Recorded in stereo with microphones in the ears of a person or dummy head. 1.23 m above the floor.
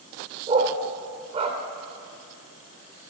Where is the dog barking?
25° right (ahead or behind), 1.5 m.